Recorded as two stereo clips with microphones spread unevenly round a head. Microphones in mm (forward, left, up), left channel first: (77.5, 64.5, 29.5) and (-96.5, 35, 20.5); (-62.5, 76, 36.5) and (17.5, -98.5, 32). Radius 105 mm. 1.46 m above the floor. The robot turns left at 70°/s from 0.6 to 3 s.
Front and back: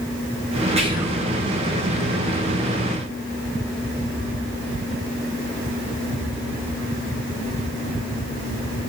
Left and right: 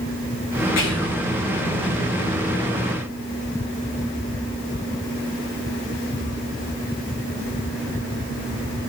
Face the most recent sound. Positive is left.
turn(degrees=-20)